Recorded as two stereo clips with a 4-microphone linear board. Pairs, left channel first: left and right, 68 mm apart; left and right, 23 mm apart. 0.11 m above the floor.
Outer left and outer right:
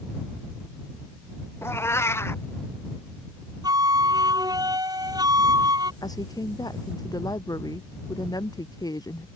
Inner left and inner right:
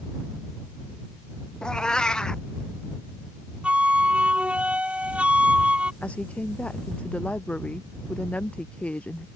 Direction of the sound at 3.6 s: 65° right (ahead or behind).